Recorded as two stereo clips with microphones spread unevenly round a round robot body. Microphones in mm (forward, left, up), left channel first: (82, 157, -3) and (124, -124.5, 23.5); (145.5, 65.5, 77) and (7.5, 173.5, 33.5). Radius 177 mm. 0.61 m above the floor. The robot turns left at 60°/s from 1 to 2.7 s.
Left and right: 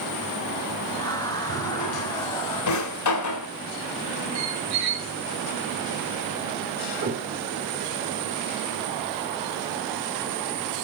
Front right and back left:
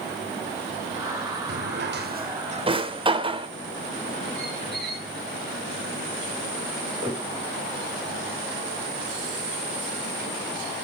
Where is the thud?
145° right, 3.5 m.